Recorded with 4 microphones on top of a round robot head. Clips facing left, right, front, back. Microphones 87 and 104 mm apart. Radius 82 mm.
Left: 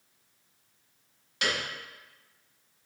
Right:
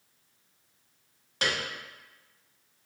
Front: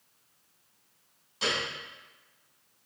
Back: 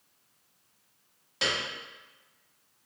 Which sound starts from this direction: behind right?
A piano, at 1.4 s.